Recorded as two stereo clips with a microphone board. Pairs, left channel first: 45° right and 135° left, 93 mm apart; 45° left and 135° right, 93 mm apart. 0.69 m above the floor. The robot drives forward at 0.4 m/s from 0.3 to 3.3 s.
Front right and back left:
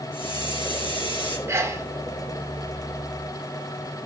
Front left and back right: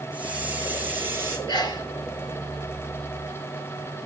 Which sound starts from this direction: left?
A sneeze, at 1.5 s.